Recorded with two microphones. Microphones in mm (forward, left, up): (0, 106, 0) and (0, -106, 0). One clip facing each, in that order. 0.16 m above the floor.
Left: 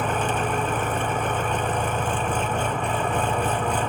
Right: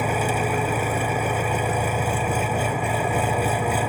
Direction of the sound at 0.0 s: 10° right (ahead or behind).